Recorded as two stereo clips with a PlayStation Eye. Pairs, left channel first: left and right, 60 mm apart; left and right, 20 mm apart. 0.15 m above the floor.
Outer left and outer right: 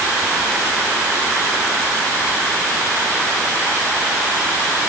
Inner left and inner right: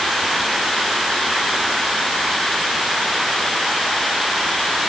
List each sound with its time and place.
Only background noise.